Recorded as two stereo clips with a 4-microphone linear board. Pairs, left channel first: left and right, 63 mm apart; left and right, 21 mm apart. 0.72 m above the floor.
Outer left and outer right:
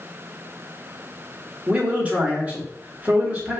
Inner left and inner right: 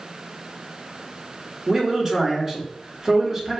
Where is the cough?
I don't hear a cough.